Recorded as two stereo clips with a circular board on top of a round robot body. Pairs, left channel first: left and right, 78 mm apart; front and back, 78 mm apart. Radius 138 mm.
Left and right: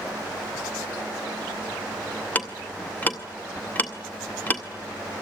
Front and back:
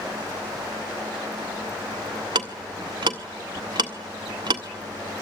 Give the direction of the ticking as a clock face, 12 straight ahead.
7 o'clock.